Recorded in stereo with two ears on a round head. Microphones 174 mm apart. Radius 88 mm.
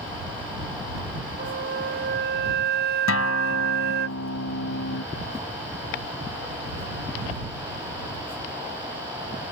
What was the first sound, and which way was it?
A flute, 60° right (ahead or behind).